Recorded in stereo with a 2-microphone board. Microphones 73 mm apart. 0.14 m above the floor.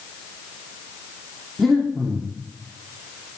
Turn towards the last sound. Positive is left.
turn(degrees=0)  # may be behind; listen again after turning